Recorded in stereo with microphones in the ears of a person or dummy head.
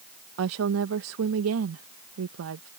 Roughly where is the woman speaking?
Right.